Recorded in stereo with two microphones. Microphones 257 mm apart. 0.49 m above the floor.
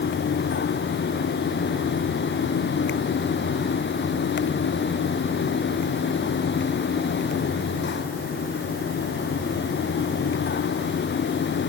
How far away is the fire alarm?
No fire alarm in this recording.